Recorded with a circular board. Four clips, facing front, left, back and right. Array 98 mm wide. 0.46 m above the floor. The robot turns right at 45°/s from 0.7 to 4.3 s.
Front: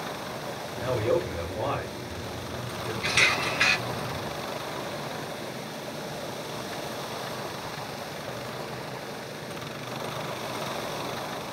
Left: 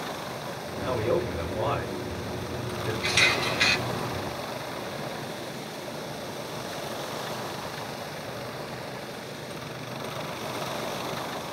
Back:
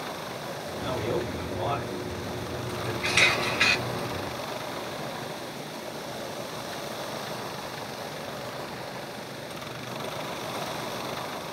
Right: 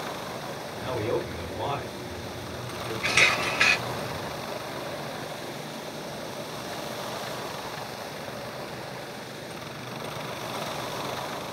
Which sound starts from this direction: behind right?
A camera shutter, at 3.0 s.